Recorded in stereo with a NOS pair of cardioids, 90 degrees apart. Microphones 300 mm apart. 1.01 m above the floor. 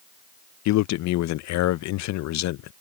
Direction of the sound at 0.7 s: 70° left.